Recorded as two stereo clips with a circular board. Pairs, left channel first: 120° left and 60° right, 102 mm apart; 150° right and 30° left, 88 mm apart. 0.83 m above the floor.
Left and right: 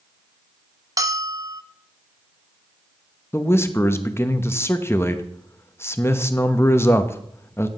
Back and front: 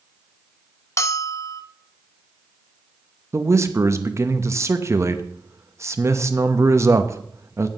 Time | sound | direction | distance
1.0 | a bell | 105° right | 0.8 m
3.3 | a man speaking | 65° left | 0.8 m